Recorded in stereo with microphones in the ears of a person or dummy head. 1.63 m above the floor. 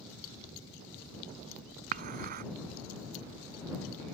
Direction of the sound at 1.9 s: 55° right (ahead or behind).